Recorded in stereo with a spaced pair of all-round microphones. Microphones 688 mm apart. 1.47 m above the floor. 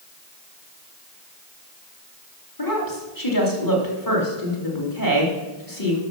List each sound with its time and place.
2.6 s a woman speaking: 30° left (ahead or behind), 3 m